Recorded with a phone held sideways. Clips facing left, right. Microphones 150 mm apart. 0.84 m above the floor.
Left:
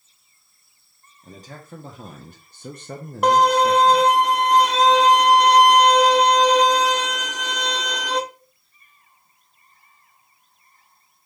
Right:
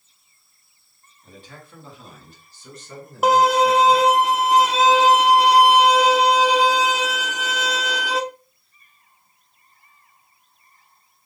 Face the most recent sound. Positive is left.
turn(degrees=-5)  # may be behind; listen again after turning